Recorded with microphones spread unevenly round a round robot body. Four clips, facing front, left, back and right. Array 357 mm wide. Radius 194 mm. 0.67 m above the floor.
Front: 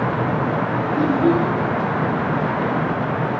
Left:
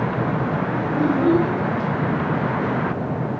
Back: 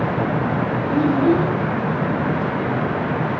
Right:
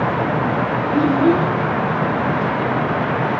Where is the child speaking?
125° right, 2.5 m.